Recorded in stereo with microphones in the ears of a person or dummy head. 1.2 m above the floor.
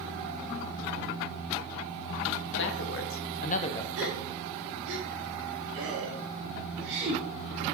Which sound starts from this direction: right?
A gasp, at 4.0 s.